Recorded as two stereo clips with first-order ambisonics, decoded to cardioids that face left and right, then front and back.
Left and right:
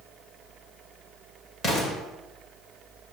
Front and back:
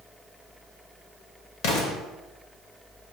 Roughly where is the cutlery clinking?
No cutlery clinking in this recording.